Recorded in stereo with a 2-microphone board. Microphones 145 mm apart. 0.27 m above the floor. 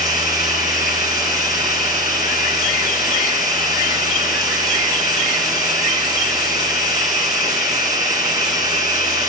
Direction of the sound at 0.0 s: 25° right (ahead or behind).